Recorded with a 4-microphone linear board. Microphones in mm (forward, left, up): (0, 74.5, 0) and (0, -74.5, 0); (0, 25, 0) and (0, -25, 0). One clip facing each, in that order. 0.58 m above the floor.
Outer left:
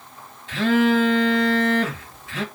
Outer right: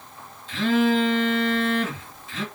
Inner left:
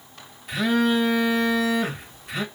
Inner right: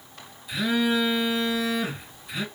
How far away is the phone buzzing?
About 1.0 m.